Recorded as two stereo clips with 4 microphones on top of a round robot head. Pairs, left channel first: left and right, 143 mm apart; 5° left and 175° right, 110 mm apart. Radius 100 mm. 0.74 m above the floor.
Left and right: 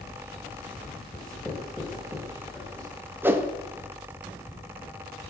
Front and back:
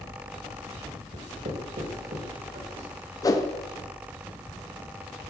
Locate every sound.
1.1 s writing: 170° left, 4 m
3.2 s a whoosh: 25° right, 1.2 m